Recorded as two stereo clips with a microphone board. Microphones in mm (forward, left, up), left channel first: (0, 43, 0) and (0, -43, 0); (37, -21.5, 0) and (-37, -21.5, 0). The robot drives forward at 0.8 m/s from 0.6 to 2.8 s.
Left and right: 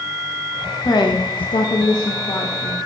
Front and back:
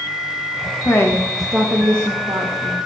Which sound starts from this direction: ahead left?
A woman speaking, at 0.8 s.